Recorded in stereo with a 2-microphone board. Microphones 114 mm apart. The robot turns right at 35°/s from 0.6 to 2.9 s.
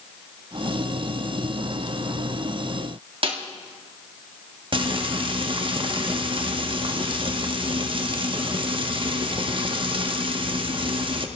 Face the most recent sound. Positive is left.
turn(degrees=-50)  # may be behind; listen again after turning